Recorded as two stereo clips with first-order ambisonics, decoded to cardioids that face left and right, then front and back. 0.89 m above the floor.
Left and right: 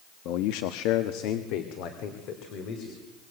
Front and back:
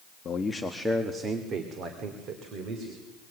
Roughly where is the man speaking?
Ahead left.